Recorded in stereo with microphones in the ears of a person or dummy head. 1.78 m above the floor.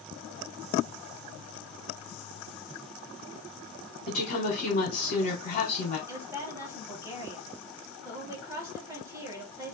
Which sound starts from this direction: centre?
A woman speaking, at 6.1 s.